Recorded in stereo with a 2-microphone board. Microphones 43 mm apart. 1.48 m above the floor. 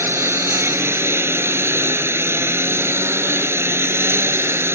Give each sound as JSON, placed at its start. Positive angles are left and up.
{"t": 0.0, "sound": "a lawn mower", "side_deg": -75}